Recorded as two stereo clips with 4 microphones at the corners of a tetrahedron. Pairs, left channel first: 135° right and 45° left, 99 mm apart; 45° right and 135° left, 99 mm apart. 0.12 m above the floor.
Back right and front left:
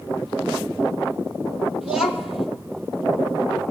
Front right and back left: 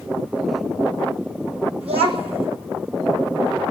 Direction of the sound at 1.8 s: 130° left.